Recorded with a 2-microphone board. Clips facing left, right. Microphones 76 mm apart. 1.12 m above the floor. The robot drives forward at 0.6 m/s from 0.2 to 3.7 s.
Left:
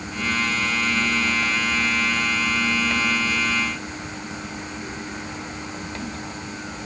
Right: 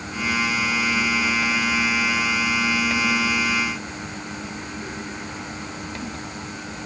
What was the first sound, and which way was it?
Only background noise.